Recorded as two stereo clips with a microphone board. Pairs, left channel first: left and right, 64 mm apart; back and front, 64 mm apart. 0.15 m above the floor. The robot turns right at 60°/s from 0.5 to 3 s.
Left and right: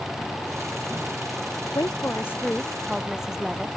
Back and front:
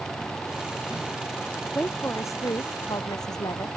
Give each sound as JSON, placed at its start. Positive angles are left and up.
{"t": 1.8, "sound": "a woman speaking", "azimuth_deg": 115}